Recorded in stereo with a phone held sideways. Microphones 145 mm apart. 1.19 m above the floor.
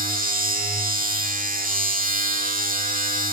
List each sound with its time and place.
0.0 s a machine running: 75° right (ahead or behind), 2 m